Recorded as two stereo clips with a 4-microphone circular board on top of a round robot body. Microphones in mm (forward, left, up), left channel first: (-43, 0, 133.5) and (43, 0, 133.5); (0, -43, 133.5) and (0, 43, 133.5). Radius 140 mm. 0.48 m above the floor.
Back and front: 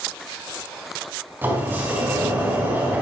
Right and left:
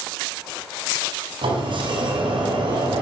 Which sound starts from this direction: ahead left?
A sliding door, at 1.4 s.